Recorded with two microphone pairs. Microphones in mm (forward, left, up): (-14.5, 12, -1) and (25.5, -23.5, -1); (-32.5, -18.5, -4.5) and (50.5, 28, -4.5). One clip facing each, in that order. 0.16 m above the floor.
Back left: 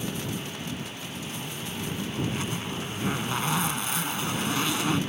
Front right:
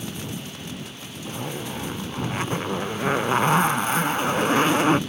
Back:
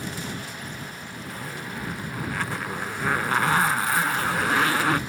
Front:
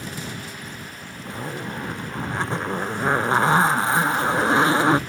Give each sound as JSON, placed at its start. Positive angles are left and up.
{"t": 1.2, "sound": "a zipper", "azimuth_deg": -20}